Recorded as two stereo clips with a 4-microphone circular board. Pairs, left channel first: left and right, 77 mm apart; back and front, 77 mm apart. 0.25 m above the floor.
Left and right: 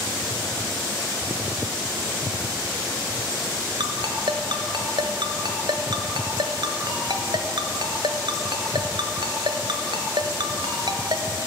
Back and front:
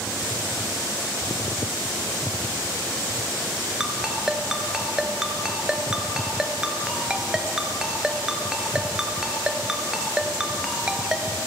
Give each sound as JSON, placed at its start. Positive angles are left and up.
{"t": 3.8, "sound": "a ringtone", "azimuth_deg": -80, "distance_m": 1.6}